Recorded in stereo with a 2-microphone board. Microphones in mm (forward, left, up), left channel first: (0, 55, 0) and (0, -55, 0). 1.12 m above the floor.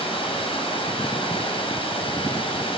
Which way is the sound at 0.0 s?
60° left (ahead or behind).